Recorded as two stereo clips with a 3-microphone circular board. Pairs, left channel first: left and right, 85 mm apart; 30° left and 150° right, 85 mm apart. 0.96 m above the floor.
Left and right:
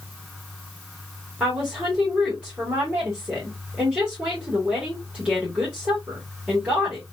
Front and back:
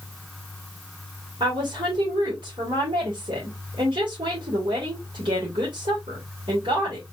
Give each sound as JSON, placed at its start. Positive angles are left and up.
{"t": 1.4, "sound": "a woman speaking", "azimuth_deg": -165, "distance_m": 2.5}